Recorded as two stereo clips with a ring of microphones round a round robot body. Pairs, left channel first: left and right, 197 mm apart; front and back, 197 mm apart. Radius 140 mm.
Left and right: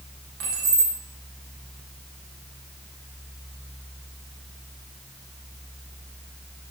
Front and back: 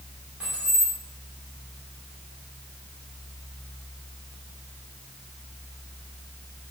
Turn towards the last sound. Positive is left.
turn(degrees=-95)